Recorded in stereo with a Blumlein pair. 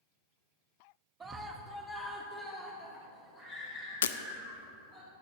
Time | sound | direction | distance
1.2 | a scream | 15° right | 1.2 m
4.0 | breaking glass | 65° left | 0.5 m